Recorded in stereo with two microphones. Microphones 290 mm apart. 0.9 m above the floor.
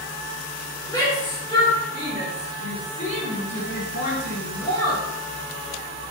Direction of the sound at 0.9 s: 15° left (ahead or behind).